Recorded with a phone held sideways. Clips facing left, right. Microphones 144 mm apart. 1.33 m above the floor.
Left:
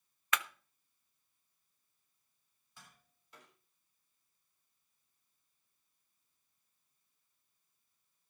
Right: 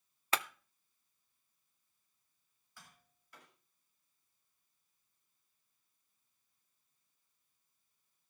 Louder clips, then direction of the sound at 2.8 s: Even; 20° left (ahead or behind).